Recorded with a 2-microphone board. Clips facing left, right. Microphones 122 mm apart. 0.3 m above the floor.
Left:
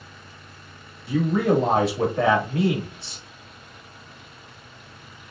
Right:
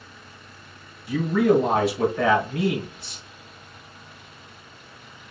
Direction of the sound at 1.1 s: 30° left (ahead or behind).